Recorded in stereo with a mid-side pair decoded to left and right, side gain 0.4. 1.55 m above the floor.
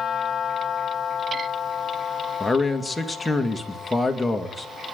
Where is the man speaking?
10° left, 2 m.